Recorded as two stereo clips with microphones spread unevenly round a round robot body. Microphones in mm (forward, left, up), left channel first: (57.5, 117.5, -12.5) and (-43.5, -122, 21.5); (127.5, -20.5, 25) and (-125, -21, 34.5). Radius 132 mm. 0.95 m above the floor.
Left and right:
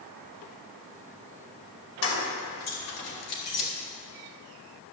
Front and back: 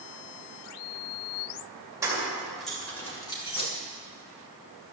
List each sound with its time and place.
2.0 s keys jangling: 100° left, 3 m; by 3.7 s 65° left, 3 m